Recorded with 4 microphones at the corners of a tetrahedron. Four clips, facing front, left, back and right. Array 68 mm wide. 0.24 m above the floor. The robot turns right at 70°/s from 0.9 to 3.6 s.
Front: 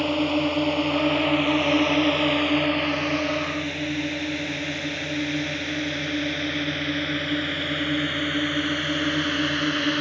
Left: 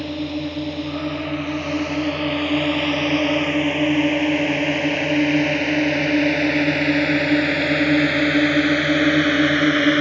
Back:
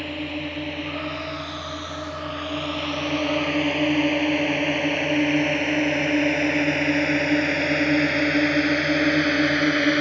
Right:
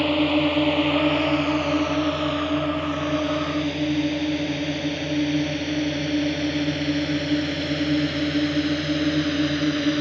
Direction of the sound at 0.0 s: 65° right.